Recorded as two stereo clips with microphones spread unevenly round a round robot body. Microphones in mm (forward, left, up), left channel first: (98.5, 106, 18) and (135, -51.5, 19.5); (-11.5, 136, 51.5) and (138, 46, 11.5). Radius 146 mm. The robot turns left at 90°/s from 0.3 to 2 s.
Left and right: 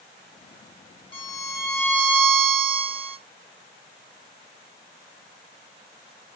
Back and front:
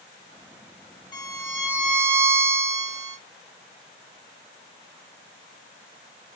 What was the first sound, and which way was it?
A violin, 80° left.